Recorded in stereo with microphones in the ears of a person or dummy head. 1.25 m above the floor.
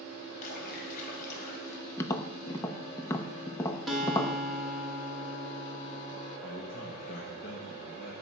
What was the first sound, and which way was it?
A splash, 50° left (ahead or behind).